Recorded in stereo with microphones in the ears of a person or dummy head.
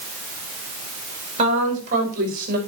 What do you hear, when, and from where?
1.4 s a woman speaking: 35° right (ahead or behind), 5.5 m; by 2.6 s 50° right (ahead or behind), 6.5 m